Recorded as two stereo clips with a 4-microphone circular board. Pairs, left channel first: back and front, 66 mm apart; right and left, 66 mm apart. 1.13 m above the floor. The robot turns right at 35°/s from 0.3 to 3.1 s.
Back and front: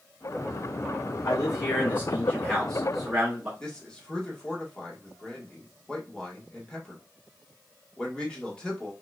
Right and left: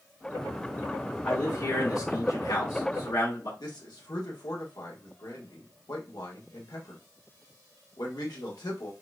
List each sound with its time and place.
1.2 s a man speaking: 145° right, 1.7 m; by 3.5 s 80° right, 1.7 m
3.6 s a man speaking: 105° right, 1.6 m